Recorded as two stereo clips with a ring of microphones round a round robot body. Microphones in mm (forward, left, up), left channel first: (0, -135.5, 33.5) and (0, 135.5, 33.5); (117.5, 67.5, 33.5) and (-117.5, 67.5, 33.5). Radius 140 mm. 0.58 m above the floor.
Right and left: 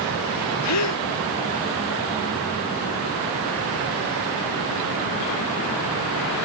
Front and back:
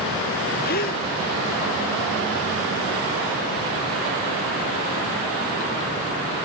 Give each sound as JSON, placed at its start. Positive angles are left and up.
{"t": 0.6, "sound": "a gasp", "azimuth_deg": -60}